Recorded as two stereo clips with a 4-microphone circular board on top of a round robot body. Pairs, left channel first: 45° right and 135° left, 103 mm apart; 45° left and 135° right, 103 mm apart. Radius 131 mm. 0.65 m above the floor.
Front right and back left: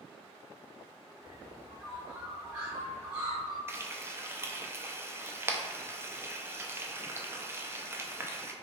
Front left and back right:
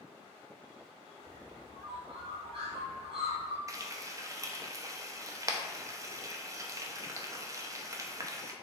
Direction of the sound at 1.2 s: 145° right.